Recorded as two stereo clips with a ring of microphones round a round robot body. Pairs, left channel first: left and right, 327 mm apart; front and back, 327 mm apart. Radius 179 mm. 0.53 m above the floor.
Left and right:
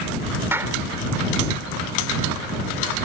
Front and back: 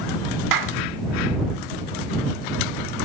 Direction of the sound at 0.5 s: 175° right.